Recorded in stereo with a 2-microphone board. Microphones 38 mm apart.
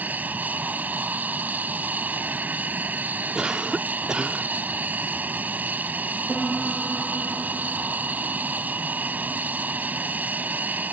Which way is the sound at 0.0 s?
45° right (ahead or behind).